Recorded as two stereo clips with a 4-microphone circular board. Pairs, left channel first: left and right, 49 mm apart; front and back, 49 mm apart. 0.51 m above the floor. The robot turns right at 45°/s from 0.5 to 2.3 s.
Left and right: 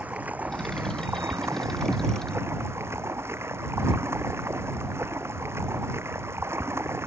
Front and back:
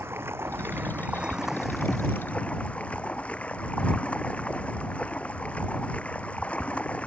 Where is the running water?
145° right; by 7.1 s 65° right.